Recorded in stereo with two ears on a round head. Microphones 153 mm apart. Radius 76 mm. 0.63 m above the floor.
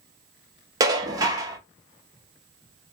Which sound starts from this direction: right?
Dishes clattering, at 0.8 s.